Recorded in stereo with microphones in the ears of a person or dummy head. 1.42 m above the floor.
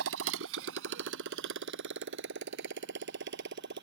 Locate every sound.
0.0 s a motorcycle: 75° right (ahead or behind); by 3.8 s 60° right (ahead or behind)